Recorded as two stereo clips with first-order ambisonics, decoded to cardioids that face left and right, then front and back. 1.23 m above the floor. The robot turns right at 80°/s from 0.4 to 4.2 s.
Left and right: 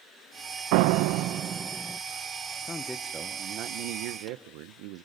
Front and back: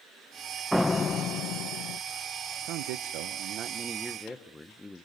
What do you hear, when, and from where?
0.7 s a door slam: 90° right, 0.5 m; by 2.0 s 10° left, 0.5 m
2.6 s a man speaking: 155° left, 0.7 m; by 5.0 s 80° right, 0.7 m